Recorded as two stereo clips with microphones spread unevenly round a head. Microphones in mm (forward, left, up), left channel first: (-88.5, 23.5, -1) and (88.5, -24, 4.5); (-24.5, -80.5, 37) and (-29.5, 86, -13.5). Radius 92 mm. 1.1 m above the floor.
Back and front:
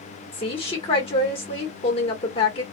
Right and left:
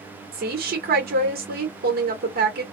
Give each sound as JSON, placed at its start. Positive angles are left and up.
{"t": 0.3, "sound": "a woman speaking", "azimuth_deg": 105, "distance_m": 1.3}